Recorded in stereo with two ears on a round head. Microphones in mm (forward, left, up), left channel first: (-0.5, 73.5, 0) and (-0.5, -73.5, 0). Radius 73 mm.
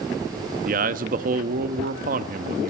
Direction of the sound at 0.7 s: 50° right (ahead or behind).